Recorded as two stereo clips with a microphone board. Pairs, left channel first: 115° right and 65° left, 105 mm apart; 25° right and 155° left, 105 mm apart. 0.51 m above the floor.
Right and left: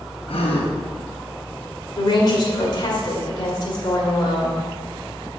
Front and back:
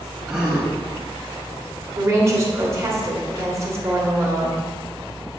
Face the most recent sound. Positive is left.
turn(degrees=-150)